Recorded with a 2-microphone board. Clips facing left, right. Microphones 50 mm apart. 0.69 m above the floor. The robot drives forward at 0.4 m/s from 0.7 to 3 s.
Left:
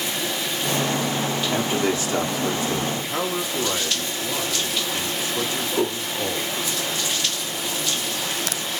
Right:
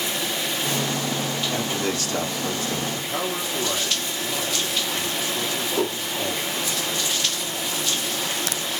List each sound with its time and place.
1.5 s a man speaking: 25° left (ahead or behind), 1.7 m; by 2.8 s 20° left (ahead or behind), 2 m
2.9 s a man speaking: 15° left (ahead or behind), 1.3 m